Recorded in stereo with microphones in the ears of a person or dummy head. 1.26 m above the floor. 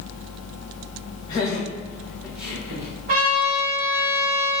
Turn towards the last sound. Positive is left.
turn(degrees=-35)  # may be behind; listen again after turning